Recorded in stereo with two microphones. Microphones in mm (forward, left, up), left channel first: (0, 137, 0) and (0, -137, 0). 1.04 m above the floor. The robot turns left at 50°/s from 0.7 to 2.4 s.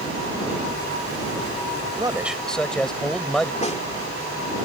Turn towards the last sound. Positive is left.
turn(degrees=25)  # may be behind; listen again after turning